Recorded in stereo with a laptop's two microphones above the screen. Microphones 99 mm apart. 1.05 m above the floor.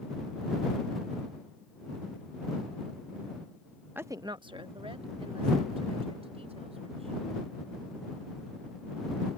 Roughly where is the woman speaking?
Centre.